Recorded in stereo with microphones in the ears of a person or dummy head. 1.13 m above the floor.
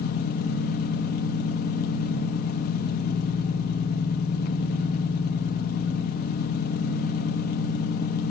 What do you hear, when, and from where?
0.0 s an engine running: 45° left (ahead or behind), 0.8 m